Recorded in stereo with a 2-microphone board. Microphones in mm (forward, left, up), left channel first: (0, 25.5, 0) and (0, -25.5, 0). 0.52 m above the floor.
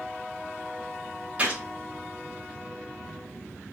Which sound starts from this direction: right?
A gunshot, at 1.4 s.